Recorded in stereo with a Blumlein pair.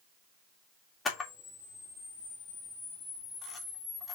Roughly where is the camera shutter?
Ahead.